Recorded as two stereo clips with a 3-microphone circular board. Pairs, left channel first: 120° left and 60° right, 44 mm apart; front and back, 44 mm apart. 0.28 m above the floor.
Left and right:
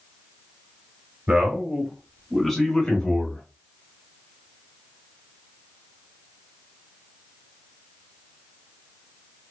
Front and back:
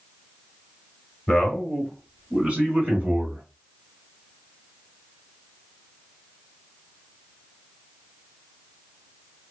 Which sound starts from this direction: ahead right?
A man speaking, at 1.3 s.